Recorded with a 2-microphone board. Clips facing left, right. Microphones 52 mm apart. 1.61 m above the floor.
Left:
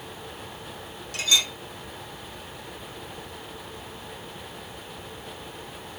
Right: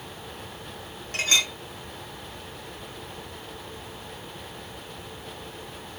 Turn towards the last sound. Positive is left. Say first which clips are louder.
# even
turn(degrees=-45)  # may be behind; listen again after turning